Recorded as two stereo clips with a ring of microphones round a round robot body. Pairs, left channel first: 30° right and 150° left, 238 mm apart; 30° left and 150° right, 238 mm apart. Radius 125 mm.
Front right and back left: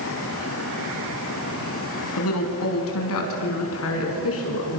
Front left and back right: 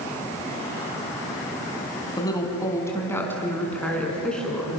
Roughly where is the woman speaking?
Ahead right.